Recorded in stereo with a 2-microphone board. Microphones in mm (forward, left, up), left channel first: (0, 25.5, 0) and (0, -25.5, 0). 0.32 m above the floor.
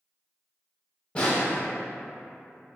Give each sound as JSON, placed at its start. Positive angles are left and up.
{"t": 1.1, "sound": "a snare drum", "side_deg": 25, "distance_m": 0.6}